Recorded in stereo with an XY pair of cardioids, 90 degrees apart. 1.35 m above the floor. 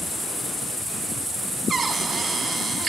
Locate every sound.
1.7 s a cupboard door: 45° right, 3.5 m